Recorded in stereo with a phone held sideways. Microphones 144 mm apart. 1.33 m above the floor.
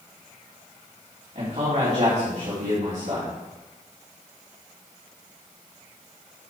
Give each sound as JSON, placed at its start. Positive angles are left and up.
{"t": 1.4, "sound": "a man speaking", "side_deg": -55, "distance_m": 3.5}